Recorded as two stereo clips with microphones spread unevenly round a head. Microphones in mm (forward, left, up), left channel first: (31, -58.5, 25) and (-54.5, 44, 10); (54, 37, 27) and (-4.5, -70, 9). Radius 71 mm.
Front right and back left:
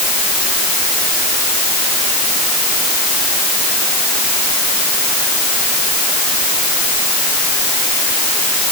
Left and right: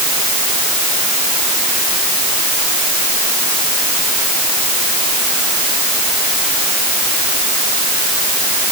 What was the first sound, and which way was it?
Only background noise.